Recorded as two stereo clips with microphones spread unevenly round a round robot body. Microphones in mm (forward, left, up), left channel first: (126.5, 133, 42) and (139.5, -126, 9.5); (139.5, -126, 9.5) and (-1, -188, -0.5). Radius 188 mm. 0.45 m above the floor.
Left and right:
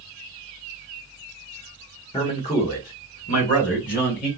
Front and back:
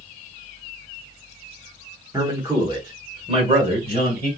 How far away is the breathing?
I don't hear breathing.